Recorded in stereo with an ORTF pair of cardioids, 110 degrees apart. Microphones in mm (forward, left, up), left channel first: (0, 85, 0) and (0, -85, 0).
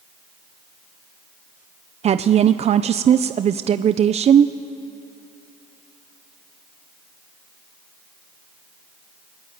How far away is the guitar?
No guitar in this recording.